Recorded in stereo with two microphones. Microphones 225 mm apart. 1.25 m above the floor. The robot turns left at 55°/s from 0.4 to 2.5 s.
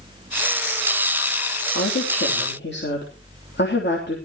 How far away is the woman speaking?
About 3 m.